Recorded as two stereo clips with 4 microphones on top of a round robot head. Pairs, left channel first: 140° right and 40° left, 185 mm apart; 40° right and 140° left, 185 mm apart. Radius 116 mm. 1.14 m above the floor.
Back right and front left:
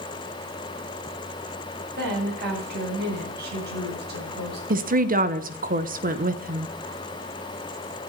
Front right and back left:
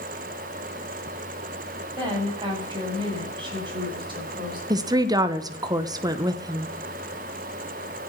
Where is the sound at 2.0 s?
75° left, 7.5 m.